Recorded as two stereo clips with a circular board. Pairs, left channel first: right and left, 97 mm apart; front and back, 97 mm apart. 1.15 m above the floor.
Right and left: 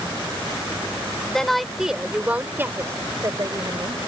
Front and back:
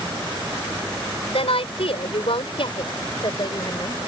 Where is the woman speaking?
5° right; by 4.0 s 45° left.